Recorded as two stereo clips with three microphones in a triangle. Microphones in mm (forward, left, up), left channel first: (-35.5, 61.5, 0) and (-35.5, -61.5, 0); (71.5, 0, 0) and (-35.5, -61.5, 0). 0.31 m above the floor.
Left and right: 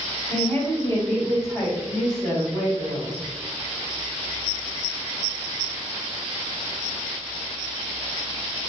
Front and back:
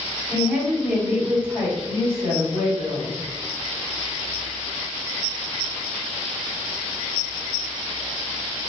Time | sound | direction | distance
0.3 | a woman speaking | 150° left | 1.2 m